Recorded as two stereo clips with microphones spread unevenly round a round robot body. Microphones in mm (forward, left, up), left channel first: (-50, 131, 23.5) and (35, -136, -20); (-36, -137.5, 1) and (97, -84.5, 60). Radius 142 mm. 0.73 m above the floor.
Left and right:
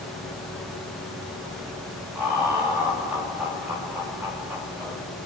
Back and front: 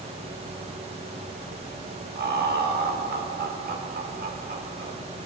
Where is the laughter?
10° left, 3 m.